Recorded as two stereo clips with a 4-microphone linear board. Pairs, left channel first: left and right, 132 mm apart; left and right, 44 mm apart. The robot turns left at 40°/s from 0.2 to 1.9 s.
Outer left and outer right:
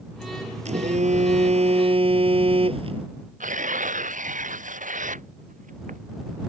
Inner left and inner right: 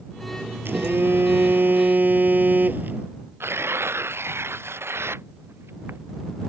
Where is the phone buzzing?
75° right; by 3.1 s 125° right.